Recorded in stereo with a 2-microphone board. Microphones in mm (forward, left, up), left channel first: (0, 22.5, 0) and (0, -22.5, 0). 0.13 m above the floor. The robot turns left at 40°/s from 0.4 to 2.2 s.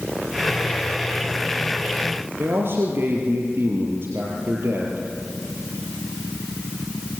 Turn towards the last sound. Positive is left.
turn(degrees=-55)  # may be behind; listen again after turning